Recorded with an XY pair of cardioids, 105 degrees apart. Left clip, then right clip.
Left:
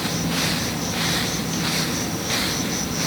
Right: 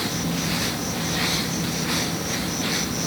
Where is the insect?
5° left, 2 m.